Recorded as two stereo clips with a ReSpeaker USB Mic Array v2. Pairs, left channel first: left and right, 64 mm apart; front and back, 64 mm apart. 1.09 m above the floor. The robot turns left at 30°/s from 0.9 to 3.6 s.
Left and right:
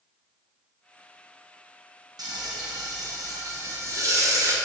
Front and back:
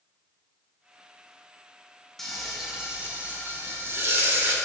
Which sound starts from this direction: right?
Frying, at 2.2 s.